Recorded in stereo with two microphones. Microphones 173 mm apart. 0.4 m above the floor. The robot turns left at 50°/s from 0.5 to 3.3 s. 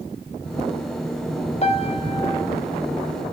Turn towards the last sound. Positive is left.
turn(degrees=-10)